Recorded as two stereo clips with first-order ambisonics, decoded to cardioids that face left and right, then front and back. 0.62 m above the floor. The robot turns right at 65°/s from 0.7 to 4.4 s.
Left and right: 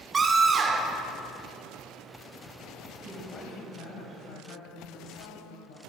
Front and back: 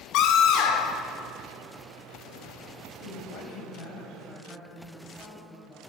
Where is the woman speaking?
10° right, 4 m; by 5.8 s 85° left, 4 m.